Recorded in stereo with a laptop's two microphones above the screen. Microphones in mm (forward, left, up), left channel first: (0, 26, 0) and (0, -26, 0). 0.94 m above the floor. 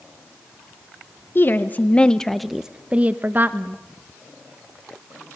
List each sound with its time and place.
1.4 s a woman speaking: 45° left (ahead or behind), 1.0 m; by 3.8 s 45° right (ahead or behind), 1.2 m